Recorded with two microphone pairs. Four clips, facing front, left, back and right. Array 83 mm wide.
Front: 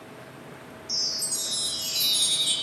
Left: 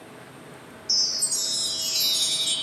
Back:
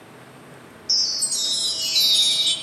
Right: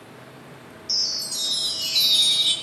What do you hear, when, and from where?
0.9 s a chime: 150° right, 1.3 m